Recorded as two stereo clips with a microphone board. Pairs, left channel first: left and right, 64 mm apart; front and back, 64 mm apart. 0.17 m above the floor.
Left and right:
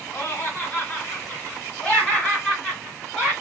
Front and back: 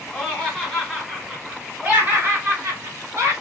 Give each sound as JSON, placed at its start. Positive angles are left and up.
{"t": 0.1, "sound": "laughter", "azimuth_deg": 70, "distance_m": 1.7}